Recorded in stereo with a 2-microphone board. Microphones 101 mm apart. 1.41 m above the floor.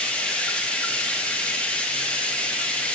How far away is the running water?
About 1.3 m.